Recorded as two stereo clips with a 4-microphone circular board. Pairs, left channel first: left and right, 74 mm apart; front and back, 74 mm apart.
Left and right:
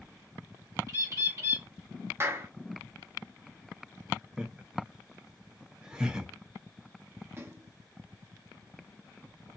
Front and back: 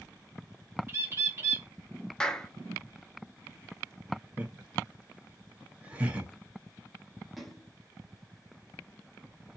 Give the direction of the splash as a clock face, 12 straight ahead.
3 o'clock.